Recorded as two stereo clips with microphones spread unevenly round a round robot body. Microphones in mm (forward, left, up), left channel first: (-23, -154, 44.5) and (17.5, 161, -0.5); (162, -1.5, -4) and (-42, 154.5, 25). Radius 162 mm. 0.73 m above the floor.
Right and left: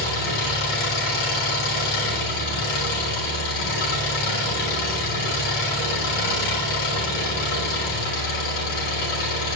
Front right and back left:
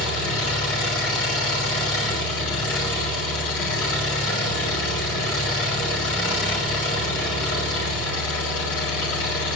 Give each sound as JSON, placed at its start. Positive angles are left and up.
{"t": 0.0, "sound": "an engine running", "azimuth_deg": -90, "distance_m": 4.0}